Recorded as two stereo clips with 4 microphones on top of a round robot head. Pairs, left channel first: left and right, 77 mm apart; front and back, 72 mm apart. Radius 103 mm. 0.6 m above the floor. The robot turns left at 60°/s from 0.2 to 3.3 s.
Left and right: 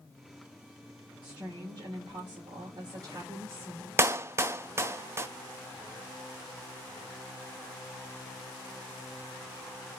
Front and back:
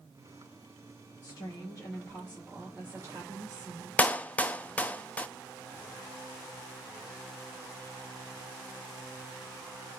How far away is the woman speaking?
About 2.5 m.